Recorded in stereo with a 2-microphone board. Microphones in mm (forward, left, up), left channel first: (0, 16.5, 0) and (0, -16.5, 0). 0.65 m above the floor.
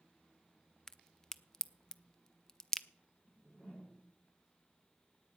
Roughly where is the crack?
Centre.